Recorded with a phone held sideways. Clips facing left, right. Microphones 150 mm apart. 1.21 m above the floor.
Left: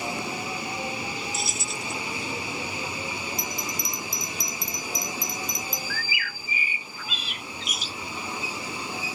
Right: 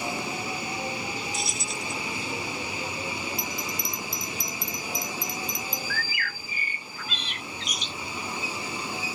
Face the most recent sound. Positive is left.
turn(degrees=5)  # may be behind; listen again after turning